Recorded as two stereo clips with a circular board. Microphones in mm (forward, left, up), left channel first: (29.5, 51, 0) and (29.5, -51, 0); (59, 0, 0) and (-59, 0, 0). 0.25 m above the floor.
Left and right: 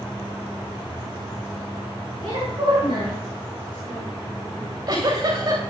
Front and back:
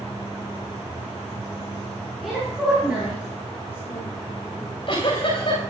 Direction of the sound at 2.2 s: 90° right.